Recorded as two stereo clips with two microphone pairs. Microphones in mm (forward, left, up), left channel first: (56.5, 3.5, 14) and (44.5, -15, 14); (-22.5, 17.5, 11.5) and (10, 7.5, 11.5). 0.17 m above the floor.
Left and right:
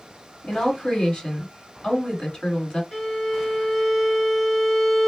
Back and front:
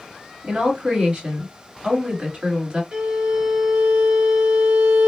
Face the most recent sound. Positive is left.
turn(degrees=50)